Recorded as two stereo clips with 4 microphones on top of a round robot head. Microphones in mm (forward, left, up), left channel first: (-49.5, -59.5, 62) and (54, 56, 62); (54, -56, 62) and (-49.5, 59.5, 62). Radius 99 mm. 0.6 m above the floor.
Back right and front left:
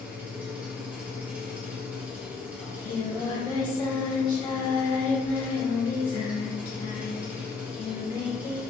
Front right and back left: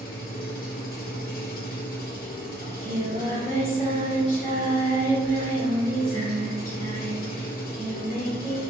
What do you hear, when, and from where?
0.0 s an engine running: 30° right, 1.2 m
2.6 s singing: 80° right, 1.9 m